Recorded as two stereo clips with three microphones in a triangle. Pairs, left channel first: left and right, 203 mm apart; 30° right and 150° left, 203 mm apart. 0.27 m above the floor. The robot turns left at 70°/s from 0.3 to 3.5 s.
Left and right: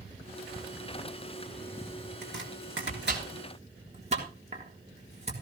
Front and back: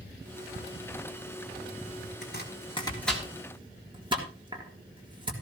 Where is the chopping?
55° right, 4 m; by 5.3 s 145° right, 4 m.